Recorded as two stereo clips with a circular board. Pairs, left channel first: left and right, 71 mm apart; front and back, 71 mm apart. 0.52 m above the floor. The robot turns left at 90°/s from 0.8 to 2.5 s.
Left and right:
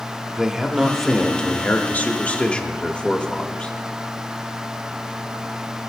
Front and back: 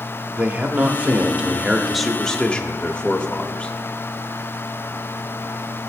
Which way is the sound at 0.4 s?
160° right.